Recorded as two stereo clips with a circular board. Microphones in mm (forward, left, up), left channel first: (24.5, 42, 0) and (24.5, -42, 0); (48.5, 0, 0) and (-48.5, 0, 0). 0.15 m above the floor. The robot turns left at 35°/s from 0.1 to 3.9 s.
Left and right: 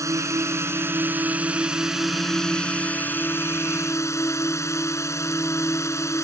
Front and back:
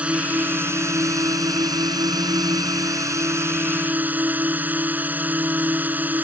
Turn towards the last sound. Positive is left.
turn(degrees=120)